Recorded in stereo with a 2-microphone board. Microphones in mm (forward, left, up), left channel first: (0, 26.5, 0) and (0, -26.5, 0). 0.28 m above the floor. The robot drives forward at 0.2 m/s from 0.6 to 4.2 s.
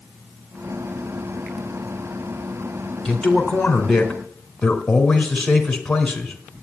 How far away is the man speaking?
About 3 m.